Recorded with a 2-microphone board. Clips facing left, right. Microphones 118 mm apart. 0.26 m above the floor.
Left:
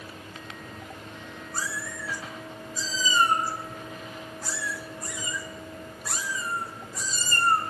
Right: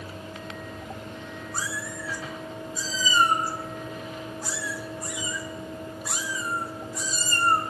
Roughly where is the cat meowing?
Centre.